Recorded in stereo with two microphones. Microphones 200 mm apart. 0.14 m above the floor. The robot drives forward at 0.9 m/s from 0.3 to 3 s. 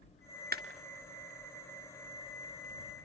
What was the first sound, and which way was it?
A clap, 50° right (ahead or behind).